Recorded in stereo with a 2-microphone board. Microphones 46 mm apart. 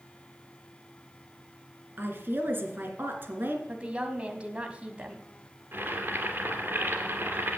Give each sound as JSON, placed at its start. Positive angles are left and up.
{"t": 2.0, "sound": "a woman speaking", "side_deg": -45, "distance_m": 2.5}
{"t": 3.7, "sound": "a woman speaking", "side_deg": -25, "distance_m": 1.6}
{"t": 5.7, "sound": "boiling", "side_deg": -50, "distance_m": 2.0}